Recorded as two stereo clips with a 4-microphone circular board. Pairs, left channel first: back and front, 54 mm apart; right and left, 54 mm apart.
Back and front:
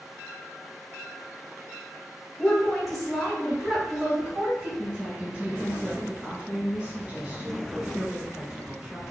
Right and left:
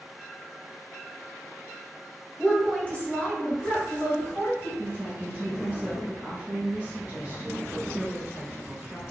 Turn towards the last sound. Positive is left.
turn(degrees=50)